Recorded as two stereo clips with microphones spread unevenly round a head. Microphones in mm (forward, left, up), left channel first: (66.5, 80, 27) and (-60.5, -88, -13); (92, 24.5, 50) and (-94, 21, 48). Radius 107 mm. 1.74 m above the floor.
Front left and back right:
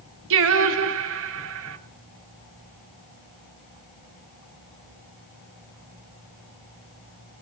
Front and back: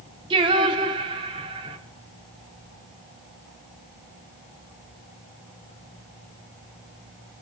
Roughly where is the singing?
Behind right.